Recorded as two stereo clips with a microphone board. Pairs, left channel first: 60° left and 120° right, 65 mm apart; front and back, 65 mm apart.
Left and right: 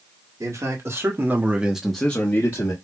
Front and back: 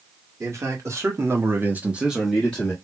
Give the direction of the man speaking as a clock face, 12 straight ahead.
5 o'clock.